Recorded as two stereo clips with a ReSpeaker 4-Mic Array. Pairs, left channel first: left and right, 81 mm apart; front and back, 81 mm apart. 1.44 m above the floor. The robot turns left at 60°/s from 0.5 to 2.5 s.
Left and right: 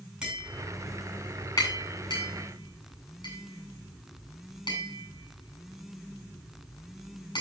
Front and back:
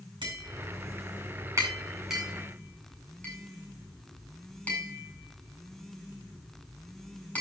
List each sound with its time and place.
0.2 s tapping: 165° right, 8 m; by 7.4 s 75° left, 8 m